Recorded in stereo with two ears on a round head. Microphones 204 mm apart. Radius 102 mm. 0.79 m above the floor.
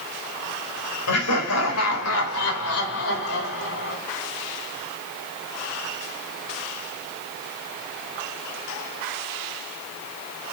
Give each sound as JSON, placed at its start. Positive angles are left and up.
{"t": 1.1, "sound": "laughter", "side_deg": 80, "distance_m": 4.0}